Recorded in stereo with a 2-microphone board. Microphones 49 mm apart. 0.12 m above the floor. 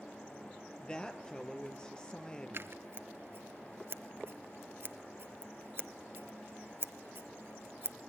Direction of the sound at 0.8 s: 20° left (ahead or behind).